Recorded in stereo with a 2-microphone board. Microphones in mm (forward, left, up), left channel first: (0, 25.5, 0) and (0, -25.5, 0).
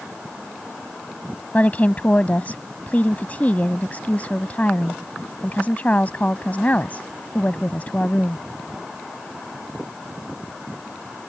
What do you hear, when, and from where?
1.5 s a woman speaking: 30° left (ahead or behind)